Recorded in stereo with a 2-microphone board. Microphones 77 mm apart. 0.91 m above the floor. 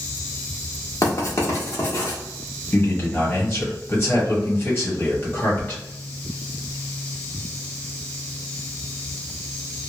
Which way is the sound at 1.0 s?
40° left (ahead or behind).